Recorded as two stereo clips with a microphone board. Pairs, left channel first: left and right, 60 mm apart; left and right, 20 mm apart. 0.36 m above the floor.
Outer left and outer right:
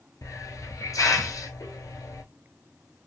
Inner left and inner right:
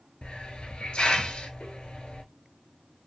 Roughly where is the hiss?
Left.